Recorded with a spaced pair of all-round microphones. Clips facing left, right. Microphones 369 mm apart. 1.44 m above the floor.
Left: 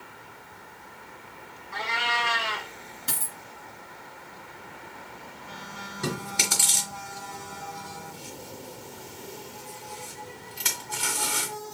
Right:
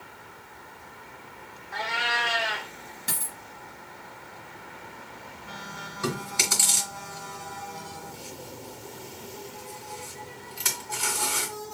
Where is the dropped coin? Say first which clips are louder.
Even; 5° left (ahead or behind), 1.7 m.